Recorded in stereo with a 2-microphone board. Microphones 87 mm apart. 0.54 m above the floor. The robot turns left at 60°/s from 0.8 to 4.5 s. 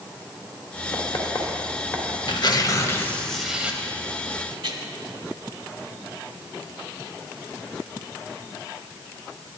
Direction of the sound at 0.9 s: 65° left (ahead or behind).